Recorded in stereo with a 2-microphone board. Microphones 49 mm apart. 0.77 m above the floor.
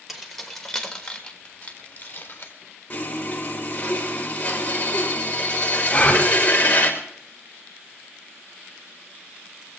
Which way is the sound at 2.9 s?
30° left (ahead or behind).